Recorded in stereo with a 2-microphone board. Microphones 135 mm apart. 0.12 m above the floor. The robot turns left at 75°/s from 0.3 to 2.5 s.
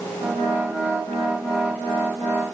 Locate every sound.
Only background noise.